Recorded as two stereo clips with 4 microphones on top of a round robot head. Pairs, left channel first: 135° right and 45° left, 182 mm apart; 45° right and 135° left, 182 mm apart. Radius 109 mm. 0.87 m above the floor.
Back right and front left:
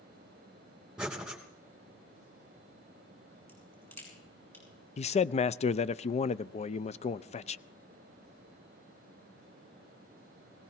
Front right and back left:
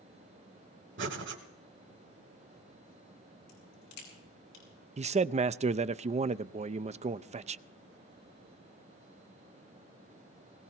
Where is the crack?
55° right, 8 m.